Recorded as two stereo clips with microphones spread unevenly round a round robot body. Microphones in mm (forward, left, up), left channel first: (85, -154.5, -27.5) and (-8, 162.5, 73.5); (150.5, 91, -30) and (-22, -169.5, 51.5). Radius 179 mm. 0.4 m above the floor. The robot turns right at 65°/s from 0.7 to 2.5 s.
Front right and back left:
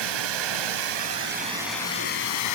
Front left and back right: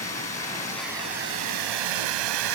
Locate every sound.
0.0 s running water: 135° left, 1.9 m; by 2.6 s 110° right, 1.9 m